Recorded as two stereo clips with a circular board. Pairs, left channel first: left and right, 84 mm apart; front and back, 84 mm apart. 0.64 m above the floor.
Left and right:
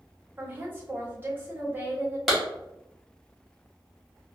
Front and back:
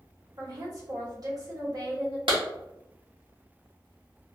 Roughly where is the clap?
Behind.